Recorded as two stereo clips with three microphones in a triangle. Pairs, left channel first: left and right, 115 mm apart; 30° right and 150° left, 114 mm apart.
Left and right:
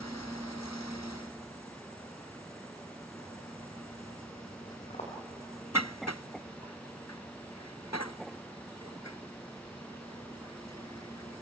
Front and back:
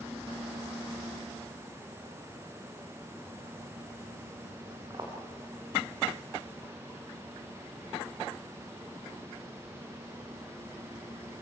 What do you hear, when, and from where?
4.9 s footsteps: 100° left, 4 m